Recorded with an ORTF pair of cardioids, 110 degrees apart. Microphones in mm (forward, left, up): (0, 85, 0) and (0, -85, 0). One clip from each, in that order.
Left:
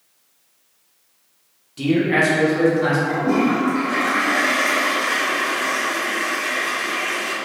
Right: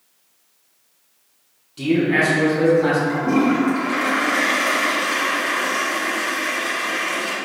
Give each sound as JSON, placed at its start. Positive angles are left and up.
{"t": 1.8, "sound": "a man speaking", "azimuth_deg": 10, "distance_m": 1.4}
{"t": 3.1, "sound": "a toilet flushing", "azimuth_deg": 0, "distance_m": 1.5}